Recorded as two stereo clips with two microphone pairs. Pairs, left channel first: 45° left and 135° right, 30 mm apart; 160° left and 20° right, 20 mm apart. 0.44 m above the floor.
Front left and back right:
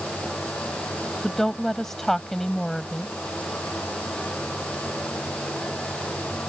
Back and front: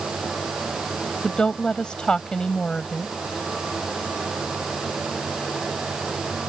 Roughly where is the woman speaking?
Behind left.